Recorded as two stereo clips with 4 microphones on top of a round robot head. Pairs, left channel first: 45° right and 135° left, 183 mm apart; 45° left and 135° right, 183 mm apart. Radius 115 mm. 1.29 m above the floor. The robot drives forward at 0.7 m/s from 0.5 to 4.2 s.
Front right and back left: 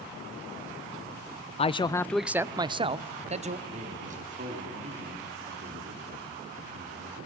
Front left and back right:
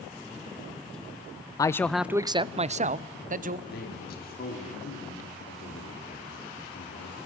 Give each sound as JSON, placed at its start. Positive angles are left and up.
{"t": 1.6, "sound": "a man speaking", "azimuth_deg": -15, "distance_m": 0.6}
{"t": 3.7, "sound": "a man speaking", "azimuth_deg": 80, "distance_m": 3.5}